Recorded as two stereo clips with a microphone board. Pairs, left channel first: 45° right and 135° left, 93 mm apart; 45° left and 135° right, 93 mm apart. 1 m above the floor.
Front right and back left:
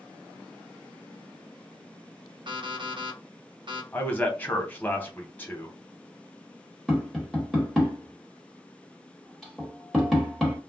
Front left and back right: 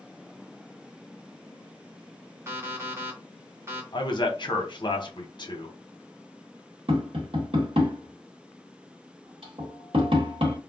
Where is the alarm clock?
165° left, 0.8 m.